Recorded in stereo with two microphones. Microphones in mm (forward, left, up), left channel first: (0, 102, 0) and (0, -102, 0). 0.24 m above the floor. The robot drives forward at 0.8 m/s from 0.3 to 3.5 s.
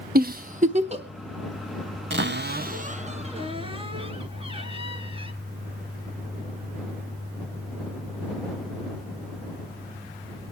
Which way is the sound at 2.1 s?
65° right (ahead or behind).